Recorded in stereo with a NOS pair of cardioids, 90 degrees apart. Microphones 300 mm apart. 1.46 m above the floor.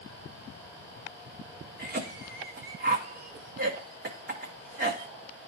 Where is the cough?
35° right, 1.1 m.